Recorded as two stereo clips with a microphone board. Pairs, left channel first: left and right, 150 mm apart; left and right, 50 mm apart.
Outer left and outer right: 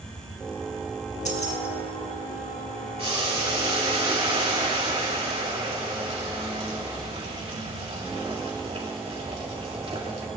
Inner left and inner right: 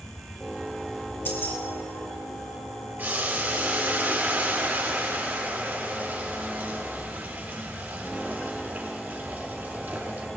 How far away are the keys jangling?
About 1.8 m.